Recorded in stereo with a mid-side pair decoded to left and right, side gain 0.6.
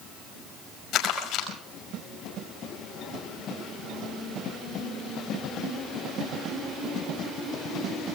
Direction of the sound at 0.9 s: 60° left.